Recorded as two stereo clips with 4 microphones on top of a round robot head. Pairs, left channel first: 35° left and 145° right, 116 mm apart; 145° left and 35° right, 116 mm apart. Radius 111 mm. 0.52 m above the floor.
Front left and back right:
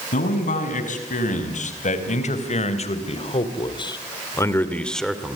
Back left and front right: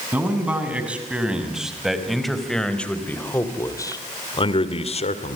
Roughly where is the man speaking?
Ahead left.